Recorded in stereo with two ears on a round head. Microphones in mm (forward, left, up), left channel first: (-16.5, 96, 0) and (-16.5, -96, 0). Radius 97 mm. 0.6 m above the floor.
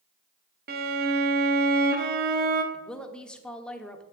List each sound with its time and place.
0.7 s a violin: 45° right (ahead or behind), 1.0 m
2.7 s a woman speaking: 5° left (ahead or behind), 1.1 m